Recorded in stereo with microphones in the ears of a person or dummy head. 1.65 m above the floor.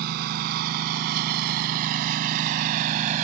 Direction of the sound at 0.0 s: 50° right (ahead or behind).